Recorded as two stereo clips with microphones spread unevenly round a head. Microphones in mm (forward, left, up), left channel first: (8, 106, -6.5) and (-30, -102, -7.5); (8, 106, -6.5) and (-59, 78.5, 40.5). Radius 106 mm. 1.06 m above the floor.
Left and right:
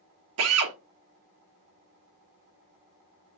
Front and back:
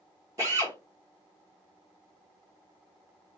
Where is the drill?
105° right, 1.1 m.